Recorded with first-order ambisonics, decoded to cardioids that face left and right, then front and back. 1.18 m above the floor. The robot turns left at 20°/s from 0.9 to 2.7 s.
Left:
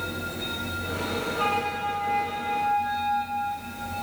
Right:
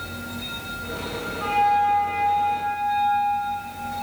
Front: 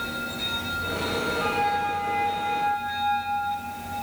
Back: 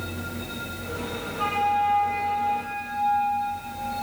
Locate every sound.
1.4 s a flute: 125° left, 4.5 m; by 3.7 s 100° left, 4.5 m